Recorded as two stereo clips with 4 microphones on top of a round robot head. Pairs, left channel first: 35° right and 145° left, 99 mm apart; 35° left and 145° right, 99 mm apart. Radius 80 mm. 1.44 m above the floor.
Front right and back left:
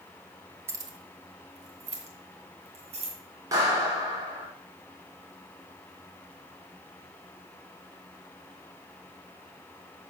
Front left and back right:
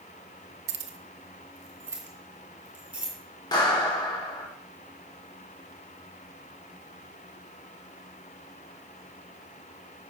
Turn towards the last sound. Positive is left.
turn(degrees=85)